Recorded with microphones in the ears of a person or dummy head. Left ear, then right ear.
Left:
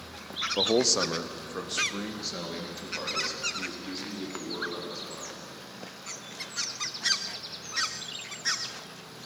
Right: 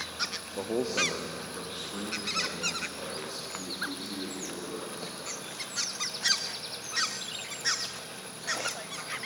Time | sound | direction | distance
0.6 | a man speaking | 45° left (ahead or behind) | 0.5 m